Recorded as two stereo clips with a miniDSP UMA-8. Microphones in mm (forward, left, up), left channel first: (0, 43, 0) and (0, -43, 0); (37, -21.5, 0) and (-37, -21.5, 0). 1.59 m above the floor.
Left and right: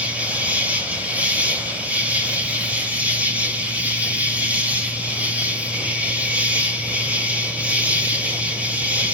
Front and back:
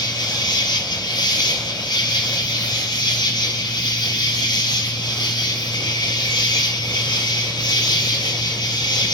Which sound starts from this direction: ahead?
An insect, at 0.0 s.